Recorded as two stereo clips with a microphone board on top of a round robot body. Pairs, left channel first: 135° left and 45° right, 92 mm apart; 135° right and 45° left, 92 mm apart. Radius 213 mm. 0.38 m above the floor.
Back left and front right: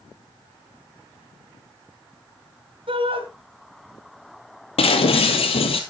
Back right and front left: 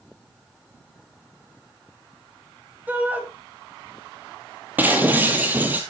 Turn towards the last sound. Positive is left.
turn(degrees=120)